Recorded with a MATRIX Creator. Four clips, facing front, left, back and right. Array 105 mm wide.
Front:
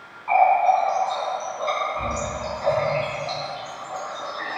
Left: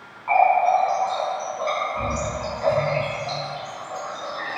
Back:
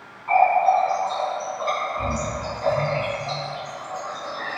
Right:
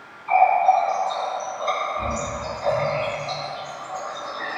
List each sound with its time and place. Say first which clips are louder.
0.3 s a running tap: right 1 dB, even; 90° left, 1.4 m